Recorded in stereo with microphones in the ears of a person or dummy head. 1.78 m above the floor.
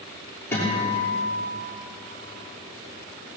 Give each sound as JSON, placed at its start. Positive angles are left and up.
{"t": 0.5, "sound": "a guitar", "side_deg": 10, "distance_m": 6.0}